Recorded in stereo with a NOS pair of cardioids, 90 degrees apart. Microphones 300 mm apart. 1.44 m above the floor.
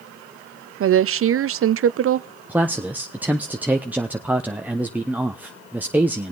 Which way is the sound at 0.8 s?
45° right.